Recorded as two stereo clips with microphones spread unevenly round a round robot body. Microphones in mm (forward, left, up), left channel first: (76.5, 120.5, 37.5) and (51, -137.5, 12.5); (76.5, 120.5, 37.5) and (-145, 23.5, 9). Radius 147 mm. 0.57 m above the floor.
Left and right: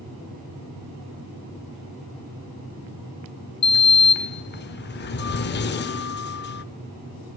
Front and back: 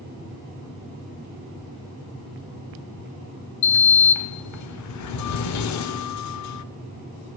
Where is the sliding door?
30° left, 0.6 m.